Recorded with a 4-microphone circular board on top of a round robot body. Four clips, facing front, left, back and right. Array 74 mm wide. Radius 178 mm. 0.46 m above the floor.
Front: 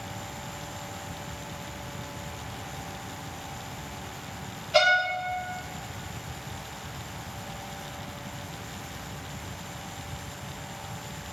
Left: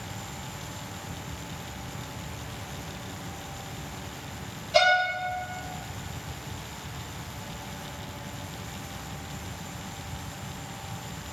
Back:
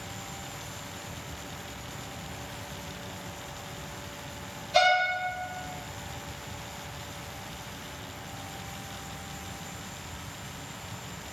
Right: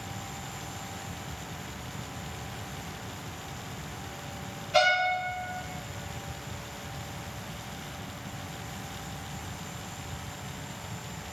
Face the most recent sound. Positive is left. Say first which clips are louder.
# left 2 dB, front 1 dB
turn(degrees=-40)